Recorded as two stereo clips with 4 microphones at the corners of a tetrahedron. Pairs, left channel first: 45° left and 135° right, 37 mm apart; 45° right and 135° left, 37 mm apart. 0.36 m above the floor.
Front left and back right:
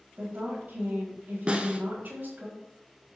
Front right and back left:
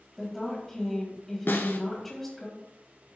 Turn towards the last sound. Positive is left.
turn(degrees=-70)